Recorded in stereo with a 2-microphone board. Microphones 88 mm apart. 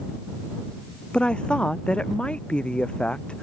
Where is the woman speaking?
10° left (ahead or behind).